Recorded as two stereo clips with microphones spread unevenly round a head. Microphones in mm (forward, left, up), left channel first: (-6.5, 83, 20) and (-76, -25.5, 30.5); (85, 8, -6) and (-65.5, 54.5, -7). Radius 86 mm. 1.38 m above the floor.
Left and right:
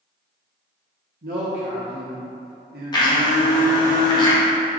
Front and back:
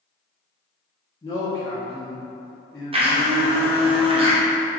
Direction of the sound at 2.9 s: 115° left.